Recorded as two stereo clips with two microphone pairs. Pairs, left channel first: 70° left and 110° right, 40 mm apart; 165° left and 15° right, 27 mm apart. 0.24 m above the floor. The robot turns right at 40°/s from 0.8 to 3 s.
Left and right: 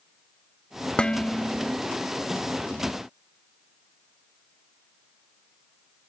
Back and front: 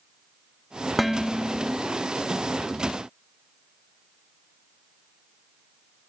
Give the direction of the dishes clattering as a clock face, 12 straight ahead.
10 o'clock.